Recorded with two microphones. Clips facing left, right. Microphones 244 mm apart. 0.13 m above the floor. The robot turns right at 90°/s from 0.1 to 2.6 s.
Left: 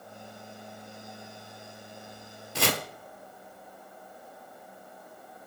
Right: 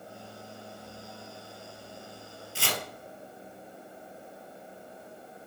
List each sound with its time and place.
2.5 s chopping: 75° left (ahead or behind), 0.6 m; by 2.8 s 70° left (ahead or behind), 0.6 m